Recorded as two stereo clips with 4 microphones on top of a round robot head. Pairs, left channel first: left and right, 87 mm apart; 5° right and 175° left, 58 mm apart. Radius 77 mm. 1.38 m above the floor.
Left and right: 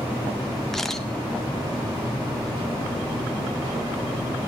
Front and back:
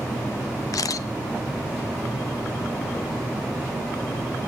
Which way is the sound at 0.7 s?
5° left.